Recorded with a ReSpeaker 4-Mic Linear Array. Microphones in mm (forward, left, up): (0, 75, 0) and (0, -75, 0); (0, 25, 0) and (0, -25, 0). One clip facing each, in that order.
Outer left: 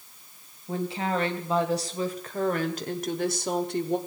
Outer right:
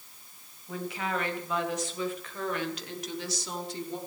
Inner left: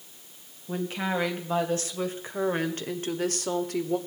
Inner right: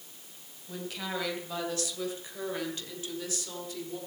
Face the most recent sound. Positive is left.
turn(degrees=60)  # may be behind; listen again after turning